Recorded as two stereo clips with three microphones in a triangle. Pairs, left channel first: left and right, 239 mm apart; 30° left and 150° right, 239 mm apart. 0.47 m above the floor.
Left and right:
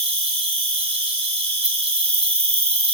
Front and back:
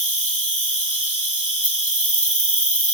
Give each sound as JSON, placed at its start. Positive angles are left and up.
{"t": 0.0, "sound": "an insect", "azimuth_deg": -25, "distance_m": 3.5}